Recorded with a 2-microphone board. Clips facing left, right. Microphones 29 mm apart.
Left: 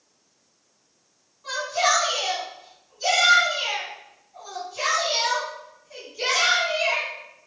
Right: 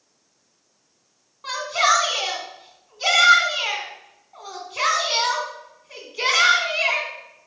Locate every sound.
1.4 s a shout: 65° right (ahead or behind), 3 m